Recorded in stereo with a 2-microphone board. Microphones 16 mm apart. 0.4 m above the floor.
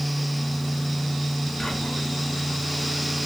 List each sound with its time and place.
1.6 s whispering: 60° left (ahead or behind), 3.5 m